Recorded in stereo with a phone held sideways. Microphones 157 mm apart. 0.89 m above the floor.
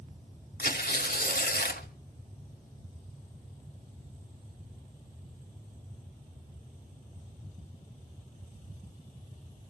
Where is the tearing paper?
75° left (ahead or behind), 1.5 m.